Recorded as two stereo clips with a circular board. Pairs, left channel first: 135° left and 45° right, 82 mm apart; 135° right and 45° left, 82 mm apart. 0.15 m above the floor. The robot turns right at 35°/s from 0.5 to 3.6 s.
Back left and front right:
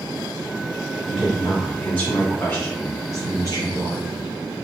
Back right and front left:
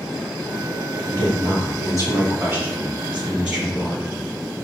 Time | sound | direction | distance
1.1 | a woman speaking | 30° left | 1.9 m